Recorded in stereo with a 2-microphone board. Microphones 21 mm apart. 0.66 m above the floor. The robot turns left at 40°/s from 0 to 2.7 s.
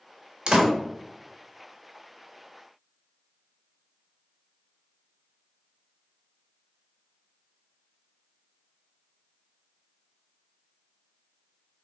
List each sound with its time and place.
0.5 s a door slam: 45° right (ahead or behind), 0.9 m; by 0.7 s 35° right (ahead or behind), 0.9 m